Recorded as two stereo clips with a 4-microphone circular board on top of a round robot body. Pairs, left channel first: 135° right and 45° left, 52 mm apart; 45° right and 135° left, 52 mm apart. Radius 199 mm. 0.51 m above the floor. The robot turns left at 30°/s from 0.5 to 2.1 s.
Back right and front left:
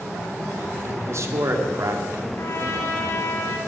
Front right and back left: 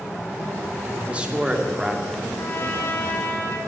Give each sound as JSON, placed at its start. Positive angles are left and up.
{"t": 0.8, "sound": "a man speaking", "azimuth_deg": 80, "distance_m": 2.0}
{"t": 2.4, "sound": "a trumpet", "azimuth_deg": -95, "distance_m": 1.9}